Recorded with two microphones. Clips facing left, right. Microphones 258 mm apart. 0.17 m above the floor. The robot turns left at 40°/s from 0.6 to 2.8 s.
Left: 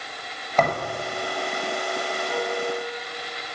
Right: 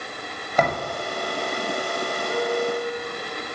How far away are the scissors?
No scissors in this recording.